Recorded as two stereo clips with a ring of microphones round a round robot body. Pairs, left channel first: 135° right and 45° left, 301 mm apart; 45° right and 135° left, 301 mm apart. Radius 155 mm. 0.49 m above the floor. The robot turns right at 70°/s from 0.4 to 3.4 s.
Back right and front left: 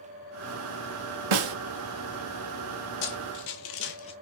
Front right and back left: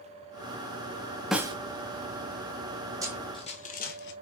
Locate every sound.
1.3 s a snare drum: 45° left, 0.6 m; by 1.6 s 65° left, 0.6 m
3.0 s running footsteps: 145° right, 1.2 m; by 4.1 s 70° right, 0.5 m